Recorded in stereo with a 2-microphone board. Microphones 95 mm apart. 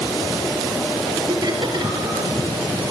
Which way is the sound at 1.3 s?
45° right (ahead or behind).